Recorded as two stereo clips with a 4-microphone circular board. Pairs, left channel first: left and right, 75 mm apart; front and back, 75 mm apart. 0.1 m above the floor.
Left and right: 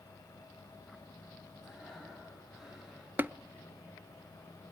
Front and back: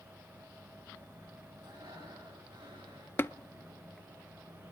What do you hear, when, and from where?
1.6 s breathing: 175° right, 10 m
3.2 s tapping: 40° right, 0.6 m